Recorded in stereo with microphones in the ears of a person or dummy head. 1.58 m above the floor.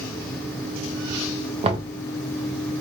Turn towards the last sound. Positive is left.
turn(degrees=-30)  # may be behind; listen again after turning